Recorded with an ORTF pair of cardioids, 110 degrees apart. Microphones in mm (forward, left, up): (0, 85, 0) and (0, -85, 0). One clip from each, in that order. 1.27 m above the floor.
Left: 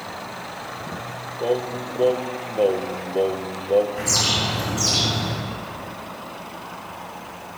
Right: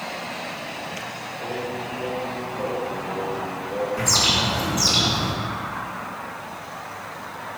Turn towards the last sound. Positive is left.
turn(degrees=-20)